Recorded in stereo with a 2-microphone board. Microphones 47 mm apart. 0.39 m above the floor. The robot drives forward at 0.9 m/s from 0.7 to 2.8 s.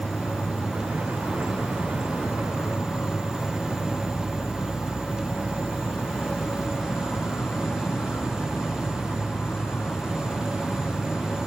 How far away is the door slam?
I don't hear a door slam.